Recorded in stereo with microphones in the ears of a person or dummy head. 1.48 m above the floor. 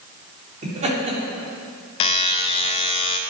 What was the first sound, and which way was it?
Laughter, 35° right (ahead or behind).